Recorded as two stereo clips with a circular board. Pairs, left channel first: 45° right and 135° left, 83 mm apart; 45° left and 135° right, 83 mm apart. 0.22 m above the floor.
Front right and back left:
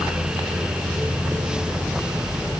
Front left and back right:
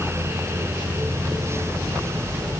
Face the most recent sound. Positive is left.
No sound to turn to.